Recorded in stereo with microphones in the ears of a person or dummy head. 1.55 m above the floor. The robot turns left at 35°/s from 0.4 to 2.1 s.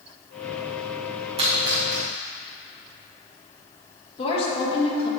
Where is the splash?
30° right (ahead or behind), 1.9 m; by 2.0 s 10° right (ahead or behind), 1.9 m.